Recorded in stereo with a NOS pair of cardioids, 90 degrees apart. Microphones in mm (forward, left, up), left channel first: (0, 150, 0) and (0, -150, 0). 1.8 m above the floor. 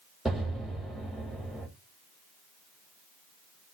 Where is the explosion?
Straight ahead, 1.2 m.